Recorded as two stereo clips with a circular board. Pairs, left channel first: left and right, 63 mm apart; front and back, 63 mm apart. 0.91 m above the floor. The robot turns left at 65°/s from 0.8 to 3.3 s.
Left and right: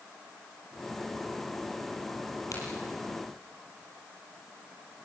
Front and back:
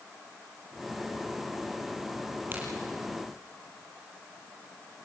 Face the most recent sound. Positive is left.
turn(degrees=70)